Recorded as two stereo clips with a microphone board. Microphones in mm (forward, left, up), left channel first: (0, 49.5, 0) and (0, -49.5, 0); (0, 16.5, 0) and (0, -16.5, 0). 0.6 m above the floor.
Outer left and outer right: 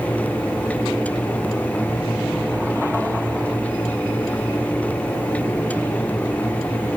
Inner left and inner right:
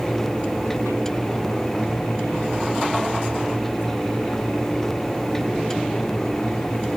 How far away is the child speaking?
I don't hear a child speaking.